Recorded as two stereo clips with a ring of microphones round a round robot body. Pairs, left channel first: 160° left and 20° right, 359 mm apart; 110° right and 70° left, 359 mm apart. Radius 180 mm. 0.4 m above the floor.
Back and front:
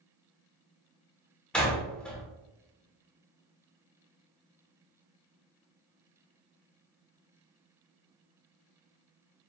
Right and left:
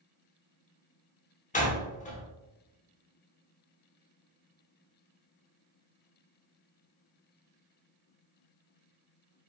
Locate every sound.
1.5 s a door slam: 120° right, 0.9 m